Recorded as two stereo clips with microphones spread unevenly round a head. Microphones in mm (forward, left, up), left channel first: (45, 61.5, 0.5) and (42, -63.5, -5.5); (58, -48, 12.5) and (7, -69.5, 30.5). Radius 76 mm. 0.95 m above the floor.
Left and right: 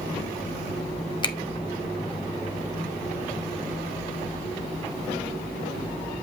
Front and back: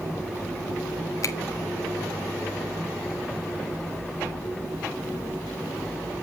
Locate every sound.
1.2 s a finger snap: 35° left, 1.5 m